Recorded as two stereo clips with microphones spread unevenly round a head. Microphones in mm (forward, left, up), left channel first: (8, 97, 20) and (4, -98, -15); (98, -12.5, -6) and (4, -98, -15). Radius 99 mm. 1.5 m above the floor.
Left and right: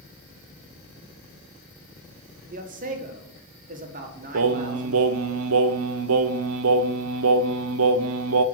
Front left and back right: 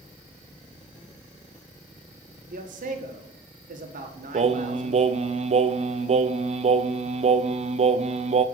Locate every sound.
2.5 s a man speaking: 140° right, 1.4 m
4.3 s singing: 100° right, 0.6 m